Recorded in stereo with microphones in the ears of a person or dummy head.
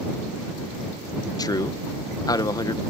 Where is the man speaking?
20° left (ahead or behind).